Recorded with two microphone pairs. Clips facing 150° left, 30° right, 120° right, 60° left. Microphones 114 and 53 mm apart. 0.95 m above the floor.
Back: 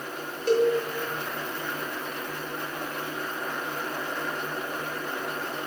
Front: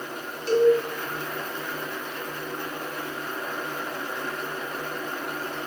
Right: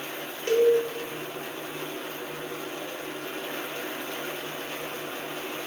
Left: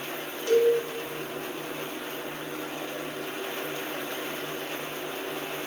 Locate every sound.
0.5 s a cowbell: 175° right, 1.7 m